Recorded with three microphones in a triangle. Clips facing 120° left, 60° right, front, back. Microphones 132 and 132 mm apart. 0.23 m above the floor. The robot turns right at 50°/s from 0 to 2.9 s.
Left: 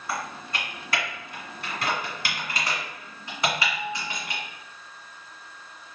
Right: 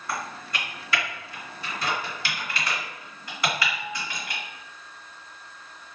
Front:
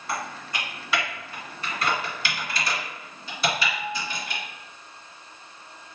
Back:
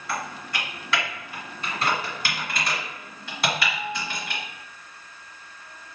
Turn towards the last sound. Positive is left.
turn(degrees=-175)